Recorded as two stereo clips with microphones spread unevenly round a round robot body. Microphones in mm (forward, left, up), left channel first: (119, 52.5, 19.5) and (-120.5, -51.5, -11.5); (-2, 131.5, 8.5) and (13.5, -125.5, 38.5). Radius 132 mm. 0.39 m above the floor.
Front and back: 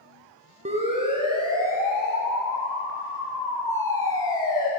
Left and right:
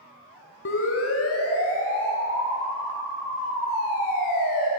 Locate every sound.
0.7 s a siren: 140° left, 4.5 m; by 4.7 s 95° left, 7 m